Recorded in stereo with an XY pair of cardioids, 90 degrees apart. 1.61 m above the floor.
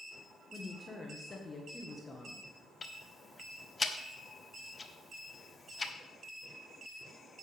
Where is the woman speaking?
35° left, 1.6 m.